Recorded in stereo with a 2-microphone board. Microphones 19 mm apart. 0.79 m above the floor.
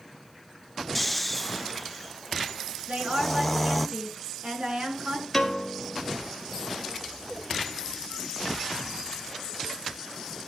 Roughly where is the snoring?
Centre.